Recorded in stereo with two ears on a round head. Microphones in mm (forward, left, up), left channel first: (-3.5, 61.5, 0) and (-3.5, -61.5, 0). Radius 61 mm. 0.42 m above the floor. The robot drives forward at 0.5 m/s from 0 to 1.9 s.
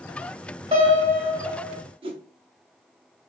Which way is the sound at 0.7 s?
40° right (ahead or behind).